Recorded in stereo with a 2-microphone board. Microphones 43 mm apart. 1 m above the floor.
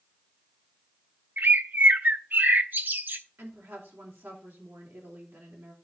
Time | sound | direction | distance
1.4 | a bird | 50° right (ahead or behind) | 0.6 m
3.4 | a woman speaking | 80° right | 3 m